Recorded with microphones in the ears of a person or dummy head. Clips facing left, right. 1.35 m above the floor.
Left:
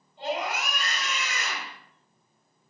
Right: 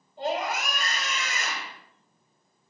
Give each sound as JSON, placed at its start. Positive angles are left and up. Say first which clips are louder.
{"t": 0.2, "sound": "a scream", "louder": "right 2 dB", "side_deg": -35, "distance_m": 7.0}